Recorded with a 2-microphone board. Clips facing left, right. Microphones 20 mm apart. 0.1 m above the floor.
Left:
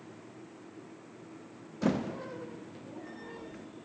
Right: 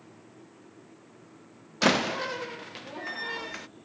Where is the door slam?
85° right.